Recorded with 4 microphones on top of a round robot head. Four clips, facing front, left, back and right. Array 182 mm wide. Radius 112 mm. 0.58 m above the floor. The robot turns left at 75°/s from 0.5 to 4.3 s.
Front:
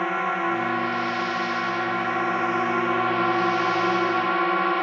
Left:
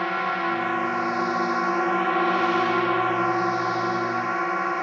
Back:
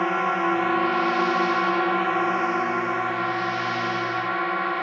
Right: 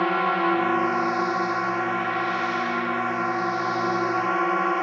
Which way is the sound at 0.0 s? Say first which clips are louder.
Right 3 dB, back 2 dB; 115° right.